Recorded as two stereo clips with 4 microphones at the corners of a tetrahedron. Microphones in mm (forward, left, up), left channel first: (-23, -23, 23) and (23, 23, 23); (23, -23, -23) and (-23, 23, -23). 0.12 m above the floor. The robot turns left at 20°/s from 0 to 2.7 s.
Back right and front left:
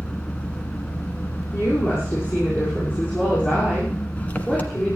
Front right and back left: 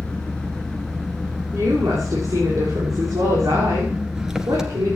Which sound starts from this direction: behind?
A woman speaking, at 1.5 s.